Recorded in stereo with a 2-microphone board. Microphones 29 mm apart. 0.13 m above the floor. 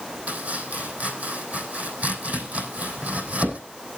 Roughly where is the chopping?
Right.